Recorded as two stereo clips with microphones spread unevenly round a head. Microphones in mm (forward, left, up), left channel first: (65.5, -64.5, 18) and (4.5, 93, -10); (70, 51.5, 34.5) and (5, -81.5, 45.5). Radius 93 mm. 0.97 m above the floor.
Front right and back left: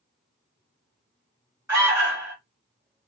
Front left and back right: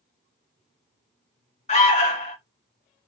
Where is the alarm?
45° left, 2 m.